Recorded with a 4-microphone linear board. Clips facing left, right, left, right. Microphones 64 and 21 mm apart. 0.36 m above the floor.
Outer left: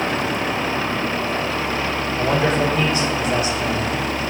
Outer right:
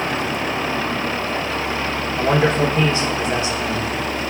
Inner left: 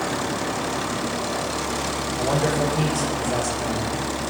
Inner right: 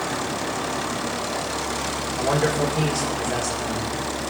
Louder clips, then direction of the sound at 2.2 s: Outer right 2 dB, inner right 1 dB; 30° right (ahead or behind).